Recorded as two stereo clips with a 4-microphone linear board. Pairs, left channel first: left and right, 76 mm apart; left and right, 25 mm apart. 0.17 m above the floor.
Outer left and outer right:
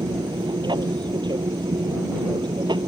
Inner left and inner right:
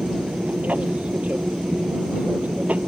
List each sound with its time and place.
0.0 s an aircraft: 70° right (ahead or behind)